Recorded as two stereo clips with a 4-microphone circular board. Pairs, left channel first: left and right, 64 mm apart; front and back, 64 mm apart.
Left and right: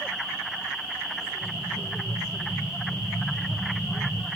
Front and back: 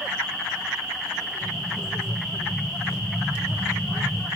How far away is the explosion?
About 5 m.